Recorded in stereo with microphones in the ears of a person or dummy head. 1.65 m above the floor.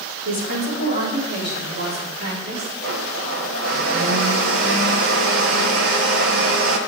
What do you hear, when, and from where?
0.2 s a woman speaking: 80° right, 5 m; by 2.7 s 70° right (ahead or behind), 5 m
2.8 s a blender: 80° right, 1.7 m